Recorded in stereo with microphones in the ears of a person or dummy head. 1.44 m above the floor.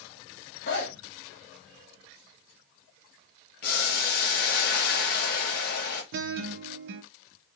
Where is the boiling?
55° left (ahead or behind), 1.0 m.